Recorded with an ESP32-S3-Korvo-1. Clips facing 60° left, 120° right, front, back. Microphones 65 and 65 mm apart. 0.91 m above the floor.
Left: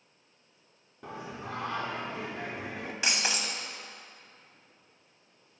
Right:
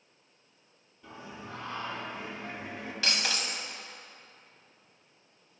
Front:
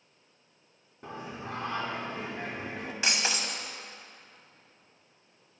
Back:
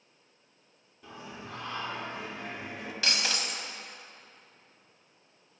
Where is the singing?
45° left, 0.9 m.